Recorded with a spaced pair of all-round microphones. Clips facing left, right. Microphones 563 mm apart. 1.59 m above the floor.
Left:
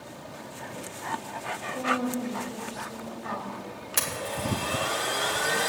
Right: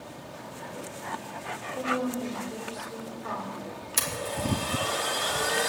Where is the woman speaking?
80° left, 3 m; by 3.5 s 65° left (ahead or behind), 3.5 m.